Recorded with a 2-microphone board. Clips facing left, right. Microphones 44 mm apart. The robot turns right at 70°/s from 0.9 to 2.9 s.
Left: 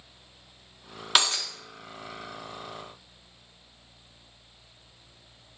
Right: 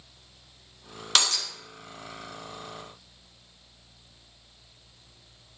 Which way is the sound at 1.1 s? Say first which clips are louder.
Left 1 dB; 10° left (ahead or behind).